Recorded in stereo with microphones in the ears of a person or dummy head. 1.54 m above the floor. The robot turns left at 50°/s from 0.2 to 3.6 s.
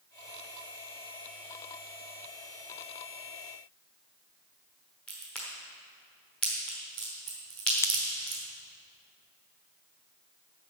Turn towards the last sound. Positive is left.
turn(degrees=15)  # may be behind; listen again after turning